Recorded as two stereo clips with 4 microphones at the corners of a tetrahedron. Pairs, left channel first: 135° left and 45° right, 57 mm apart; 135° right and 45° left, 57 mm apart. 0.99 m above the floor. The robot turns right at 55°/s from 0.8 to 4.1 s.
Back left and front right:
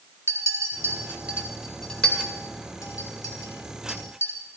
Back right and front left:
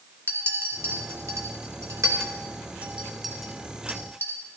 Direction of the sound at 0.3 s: 5° right.